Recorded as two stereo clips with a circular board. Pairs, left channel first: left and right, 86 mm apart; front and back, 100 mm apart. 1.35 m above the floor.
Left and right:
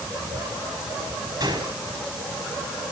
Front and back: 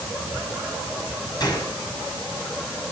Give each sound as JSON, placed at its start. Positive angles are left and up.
{"t": 1.4, "sound": "a gunshot", "azimuth_deg": -45, "distance_m": 6.0}